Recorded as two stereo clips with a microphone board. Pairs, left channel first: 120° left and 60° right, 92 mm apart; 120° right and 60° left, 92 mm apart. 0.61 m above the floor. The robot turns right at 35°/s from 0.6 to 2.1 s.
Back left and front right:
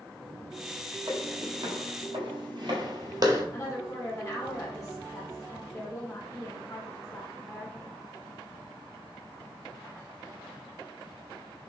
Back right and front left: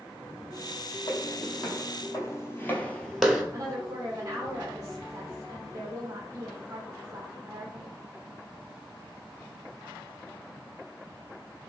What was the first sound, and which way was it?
Footsteps, 120° right.